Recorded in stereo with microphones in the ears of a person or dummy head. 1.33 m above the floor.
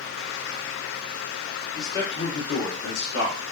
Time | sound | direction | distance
1.8 | a man speaking | 20° left (ahead or behind) | 1.3 m